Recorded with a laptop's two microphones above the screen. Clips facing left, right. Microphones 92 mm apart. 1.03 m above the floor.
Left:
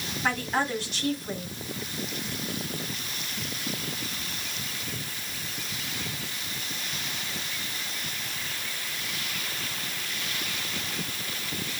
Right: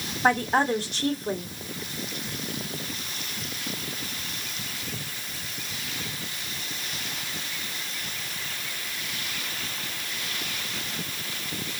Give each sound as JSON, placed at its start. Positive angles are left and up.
{"t": 0.2, "sound": "a woman speaking", "side_deg": -50, "distance_m": 3.0}